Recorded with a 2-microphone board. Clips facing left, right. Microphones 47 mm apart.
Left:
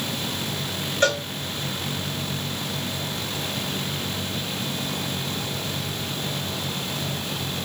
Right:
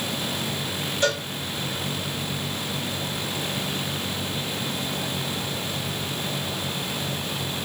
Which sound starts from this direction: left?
A cowbell, at 1.0 s.